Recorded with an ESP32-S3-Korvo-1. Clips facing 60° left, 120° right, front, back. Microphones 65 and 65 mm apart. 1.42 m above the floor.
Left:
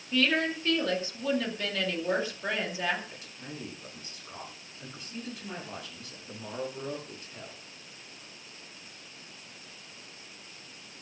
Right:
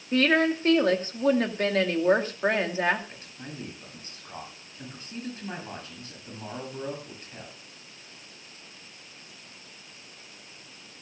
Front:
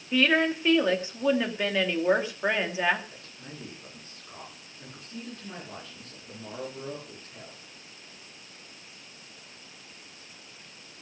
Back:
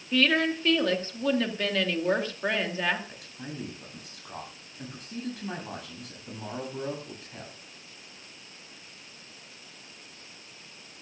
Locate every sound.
0.1 s a woman speaking: 75° right, 2.5 m
3.1 s a man speaking: 175° right, 8.5 m